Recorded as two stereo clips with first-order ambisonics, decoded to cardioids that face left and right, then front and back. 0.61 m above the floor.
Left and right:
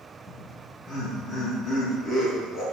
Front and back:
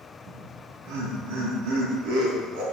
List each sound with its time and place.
0.3 s laughter: 170° left, 4.5 m